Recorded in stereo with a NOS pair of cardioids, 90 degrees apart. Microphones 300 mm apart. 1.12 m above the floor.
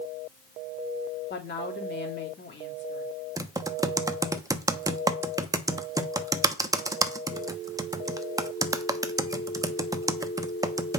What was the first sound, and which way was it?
A woman speaking, 35° left.